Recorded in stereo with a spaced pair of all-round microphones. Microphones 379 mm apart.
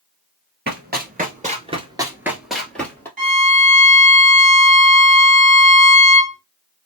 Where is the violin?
65° right (ahead or behind), 1.9 m.